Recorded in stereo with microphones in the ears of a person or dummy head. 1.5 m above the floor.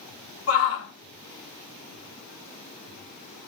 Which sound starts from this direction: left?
A shout, at 0.5 s.